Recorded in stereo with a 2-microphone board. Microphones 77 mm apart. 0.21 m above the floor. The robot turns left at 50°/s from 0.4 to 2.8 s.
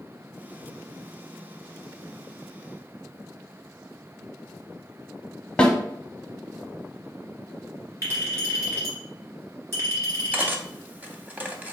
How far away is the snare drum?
About 0.7 m.